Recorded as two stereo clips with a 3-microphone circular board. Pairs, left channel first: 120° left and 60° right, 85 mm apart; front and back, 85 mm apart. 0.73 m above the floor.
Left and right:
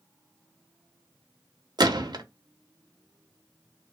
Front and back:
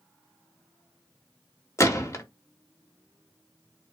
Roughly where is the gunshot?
Ahead right.